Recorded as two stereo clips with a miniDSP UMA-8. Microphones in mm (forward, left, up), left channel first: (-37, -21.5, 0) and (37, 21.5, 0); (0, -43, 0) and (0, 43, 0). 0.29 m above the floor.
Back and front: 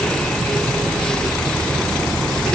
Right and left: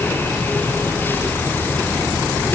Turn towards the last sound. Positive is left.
No sound to turn to.